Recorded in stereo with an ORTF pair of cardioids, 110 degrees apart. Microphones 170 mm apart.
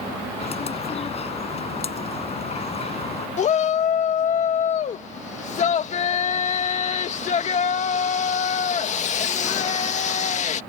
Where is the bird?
35° left.